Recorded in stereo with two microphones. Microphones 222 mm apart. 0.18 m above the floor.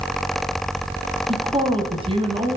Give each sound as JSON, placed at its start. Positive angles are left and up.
{"t": 1.3, "sound": "a woman speaking", "side_deg": -25, "distance_m": 1.6}